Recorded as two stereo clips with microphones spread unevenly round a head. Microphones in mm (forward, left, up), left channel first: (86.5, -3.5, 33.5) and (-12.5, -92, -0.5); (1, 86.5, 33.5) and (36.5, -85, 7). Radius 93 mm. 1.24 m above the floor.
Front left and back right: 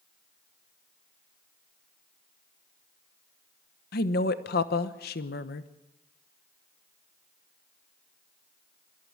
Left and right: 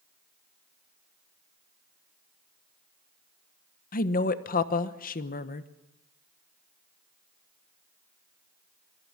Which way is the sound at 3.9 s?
60° left.